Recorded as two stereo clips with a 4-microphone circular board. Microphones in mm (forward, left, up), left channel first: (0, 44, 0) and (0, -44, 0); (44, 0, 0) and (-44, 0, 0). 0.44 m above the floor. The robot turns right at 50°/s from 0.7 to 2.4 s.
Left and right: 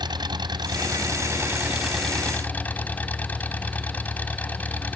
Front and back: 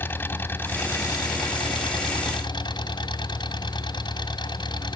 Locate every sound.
0.0 s an engine running: 65° right; by 5.0 s 20° left